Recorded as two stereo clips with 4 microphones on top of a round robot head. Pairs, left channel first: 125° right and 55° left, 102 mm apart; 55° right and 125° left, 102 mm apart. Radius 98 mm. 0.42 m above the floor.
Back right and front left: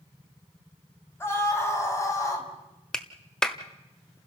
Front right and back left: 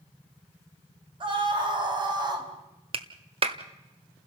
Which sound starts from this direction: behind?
A scream, at 1.2 s.